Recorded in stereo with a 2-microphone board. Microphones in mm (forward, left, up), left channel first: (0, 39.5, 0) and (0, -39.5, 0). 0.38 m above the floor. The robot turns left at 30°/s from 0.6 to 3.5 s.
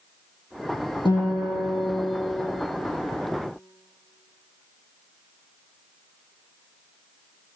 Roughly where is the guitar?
Left.